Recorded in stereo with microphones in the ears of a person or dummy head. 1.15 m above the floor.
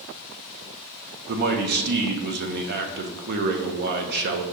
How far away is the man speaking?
About 0.6 m.